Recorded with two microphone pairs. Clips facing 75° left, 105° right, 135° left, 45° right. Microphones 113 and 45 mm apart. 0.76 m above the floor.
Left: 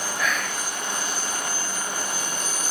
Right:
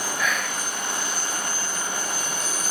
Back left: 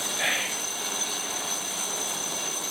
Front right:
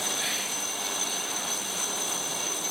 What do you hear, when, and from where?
0.2 s whispering: 170° left, 0.6 m